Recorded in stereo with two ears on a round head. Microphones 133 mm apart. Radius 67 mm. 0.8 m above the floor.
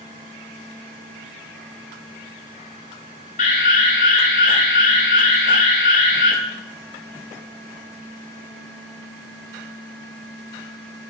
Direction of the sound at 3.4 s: 60° left (ahead or behind).